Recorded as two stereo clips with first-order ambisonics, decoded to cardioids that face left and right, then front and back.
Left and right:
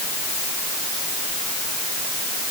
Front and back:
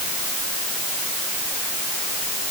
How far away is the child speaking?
No child speaking in this recording.